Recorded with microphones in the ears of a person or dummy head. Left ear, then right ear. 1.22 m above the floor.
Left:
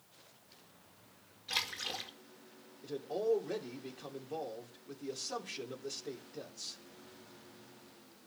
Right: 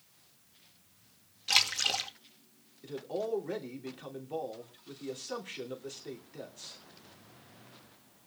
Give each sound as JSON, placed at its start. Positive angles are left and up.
{"t": 1.5, "sound": "a splash", "side_deg": -65, "distance_m": 2.0}
{"t": 2.8, "sound": "a man speaking", "side_deg": -15, "distance_m": 3.0}